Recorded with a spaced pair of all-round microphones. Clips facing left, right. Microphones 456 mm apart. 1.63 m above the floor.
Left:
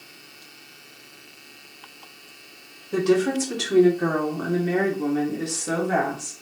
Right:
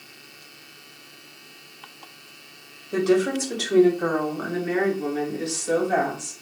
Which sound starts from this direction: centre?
A woman speaking, at 2.9 s.